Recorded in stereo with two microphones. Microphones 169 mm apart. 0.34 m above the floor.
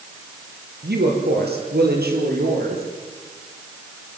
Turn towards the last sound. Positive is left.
turn(degrees=-65)  # may be behind; listen again after turning